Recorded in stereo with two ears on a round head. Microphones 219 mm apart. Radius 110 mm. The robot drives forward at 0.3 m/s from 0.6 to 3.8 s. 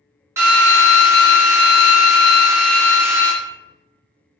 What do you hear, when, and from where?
0.4 s a drill: 10° right (ahead or behind), 1.2 m